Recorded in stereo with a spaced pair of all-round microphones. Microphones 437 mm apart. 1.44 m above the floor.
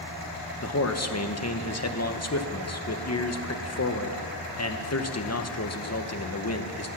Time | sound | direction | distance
0.6 | a man speaking | 35° left (ahead or behind) | 0.9 m